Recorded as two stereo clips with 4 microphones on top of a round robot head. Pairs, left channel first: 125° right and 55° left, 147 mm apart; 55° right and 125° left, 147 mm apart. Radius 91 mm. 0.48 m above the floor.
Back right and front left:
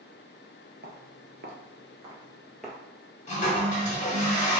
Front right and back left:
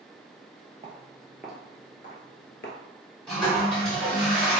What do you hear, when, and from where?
0.8 s footsteps: 70° left, 0.8 m; by 2.8 s 45° right, 0.8 m
3.3 s a toilet flushing: 135° right, 1.9 m